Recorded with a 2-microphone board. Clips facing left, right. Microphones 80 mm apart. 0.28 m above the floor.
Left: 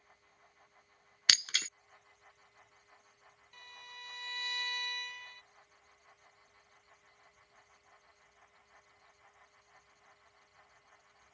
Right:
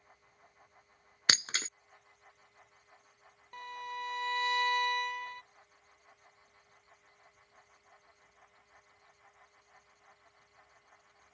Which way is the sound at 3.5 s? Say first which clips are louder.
Right 13 dB; 55° right (ahead or behind).